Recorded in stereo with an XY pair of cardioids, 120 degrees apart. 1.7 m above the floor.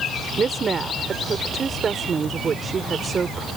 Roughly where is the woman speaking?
Ahead right.